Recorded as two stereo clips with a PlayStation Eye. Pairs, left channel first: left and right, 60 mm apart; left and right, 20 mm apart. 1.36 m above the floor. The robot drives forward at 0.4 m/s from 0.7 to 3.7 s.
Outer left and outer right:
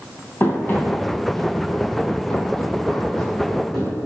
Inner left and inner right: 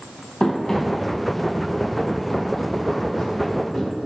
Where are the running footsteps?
35° left (ahead or behind), 1.8 m; by 3.9 s centre (ahead or behind), 3 m.